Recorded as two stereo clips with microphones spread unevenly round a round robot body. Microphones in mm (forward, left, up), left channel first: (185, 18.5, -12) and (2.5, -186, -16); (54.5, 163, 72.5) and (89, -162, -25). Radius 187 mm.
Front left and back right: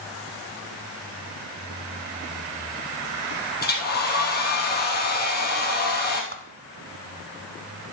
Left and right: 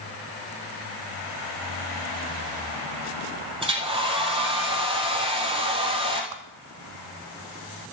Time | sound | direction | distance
3.6 | a hair dryer | 10° right | 2.5 m
6.3 | a whoosh | 75° right | 0.9 m